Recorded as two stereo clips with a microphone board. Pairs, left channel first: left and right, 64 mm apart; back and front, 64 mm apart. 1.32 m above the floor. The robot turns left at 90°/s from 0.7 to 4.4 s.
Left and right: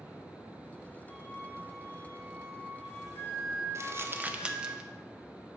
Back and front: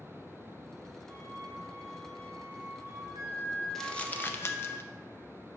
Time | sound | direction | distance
1.1 | a flute | straight ahead | 3.5 m
3.8 | crumpling | 95° right | 0.6 m